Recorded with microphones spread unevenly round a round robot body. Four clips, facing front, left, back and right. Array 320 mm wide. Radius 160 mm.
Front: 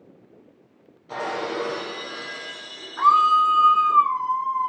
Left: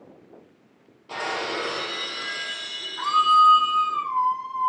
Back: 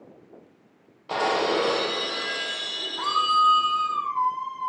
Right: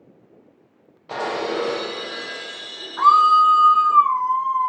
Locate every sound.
1.1 s breaking glass: 145° right, 5 m
3.0 s a scream: 80° right, 2.5 m